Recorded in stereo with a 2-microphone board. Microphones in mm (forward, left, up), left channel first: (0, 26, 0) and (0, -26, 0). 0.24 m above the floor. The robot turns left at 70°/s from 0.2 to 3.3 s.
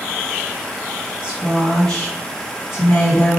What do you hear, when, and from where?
1.2 s a woman speaking: 155° right, 2 m; by 3.4 s 60° left, 2 m